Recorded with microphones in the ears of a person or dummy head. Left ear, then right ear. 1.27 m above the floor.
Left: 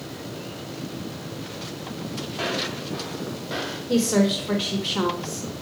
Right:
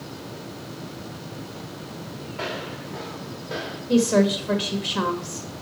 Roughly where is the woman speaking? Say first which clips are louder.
Right 2 dB; centre.